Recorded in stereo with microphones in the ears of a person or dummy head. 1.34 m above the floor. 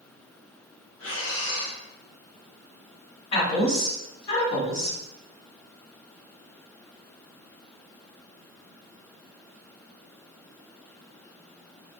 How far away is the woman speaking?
About 1.6 m.